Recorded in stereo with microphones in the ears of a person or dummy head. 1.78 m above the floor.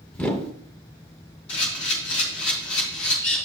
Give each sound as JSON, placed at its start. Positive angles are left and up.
{"t": 0.1, "sound": "a whoosh", "side_deg": 5, "distance_m": 0.9}
{"t": 1.5, "sound": "a camera shutter", "side_deg": 75, "distance_m": 3.5}